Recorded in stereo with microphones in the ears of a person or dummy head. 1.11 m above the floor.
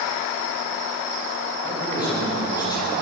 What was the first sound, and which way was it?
A man speaking, 25° left (ahead or behind).